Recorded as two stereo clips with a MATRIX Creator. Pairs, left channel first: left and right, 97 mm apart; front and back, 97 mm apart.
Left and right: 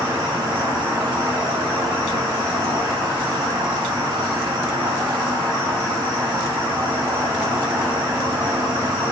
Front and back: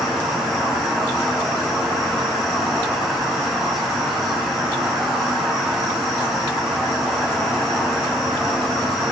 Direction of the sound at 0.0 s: 85° right.